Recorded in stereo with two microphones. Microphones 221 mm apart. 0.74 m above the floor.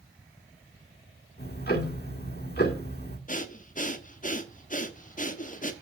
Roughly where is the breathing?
Left.